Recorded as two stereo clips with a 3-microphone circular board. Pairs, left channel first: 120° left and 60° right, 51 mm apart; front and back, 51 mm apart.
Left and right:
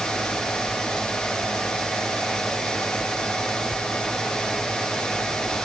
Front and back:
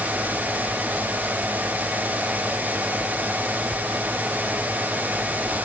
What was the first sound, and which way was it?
Only background noise.